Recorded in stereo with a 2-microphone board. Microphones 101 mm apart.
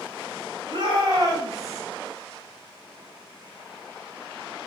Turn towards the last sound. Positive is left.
turn(degrees=-30)  # may be behind; listen again after turning